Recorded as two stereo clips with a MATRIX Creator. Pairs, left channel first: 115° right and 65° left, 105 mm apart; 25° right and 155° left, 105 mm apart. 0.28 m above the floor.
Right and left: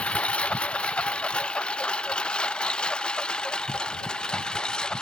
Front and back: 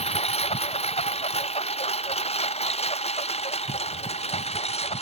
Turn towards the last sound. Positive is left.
turn(degrees=-30)